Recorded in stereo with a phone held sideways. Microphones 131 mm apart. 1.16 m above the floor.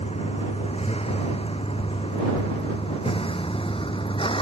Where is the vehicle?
50° left (ahead or behind); by 4.4 s 40° left (ahead or behind).